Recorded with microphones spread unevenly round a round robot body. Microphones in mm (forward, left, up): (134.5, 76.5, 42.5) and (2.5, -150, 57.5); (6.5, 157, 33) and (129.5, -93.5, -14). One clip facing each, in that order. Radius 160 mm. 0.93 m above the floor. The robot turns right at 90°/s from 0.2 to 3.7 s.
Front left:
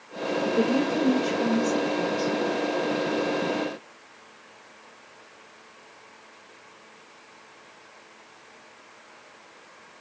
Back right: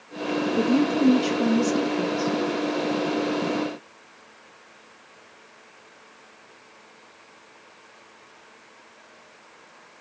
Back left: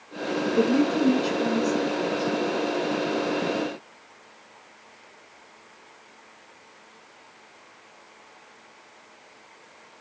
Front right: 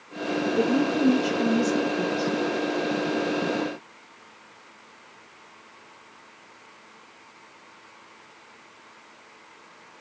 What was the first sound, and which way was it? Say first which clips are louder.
A woman speaking: back right 3 dB, back left 2 dB; 175° left.